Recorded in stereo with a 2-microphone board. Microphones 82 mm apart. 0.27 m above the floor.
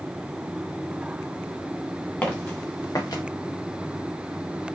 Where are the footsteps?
25° left (ahead or behind), 3 m; by 3.2 s 55° left (ahead or behind), 1.9 m.